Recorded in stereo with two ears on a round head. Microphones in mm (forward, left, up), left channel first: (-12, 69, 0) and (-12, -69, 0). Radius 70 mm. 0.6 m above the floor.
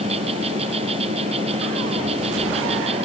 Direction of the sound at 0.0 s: 45° right (ahead or behind).